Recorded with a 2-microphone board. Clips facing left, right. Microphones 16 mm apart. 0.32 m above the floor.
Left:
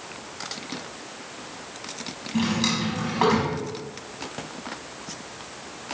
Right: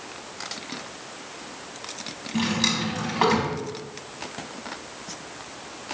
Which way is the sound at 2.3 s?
Centre (ahead or behind).